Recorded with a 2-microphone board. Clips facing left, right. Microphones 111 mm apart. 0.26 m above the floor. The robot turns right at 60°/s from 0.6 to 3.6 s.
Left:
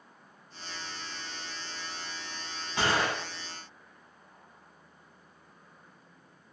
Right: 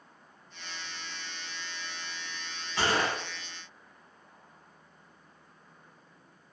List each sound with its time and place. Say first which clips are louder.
2.8 s a gunshot: even; 20° left (ahead or behind), 1.5 m; by 3.2 s centre (ahead or behind), 1.5 m